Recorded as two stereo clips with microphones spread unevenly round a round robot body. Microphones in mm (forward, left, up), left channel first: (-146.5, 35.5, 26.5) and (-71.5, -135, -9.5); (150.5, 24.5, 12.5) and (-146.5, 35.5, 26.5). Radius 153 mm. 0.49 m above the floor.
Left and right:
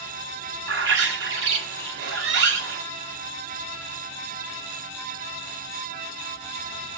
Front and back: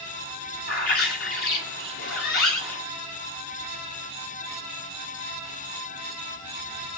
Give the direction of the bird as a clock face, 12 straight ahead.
2 o'clock.